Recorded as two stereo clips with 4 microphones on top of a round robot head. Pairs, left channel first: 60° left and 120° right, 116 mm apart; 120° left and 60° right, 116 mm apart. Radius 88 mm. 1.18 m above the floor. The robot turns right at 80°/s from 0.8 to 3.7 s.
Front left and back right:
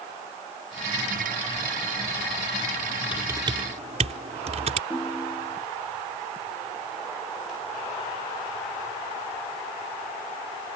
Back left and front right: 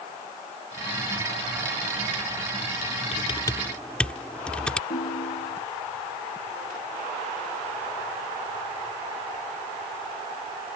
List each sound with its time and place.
3.1 s typing on a keyboard: 155° left; by 4.8 s 155° right
4.9 s a ringtone: 135° left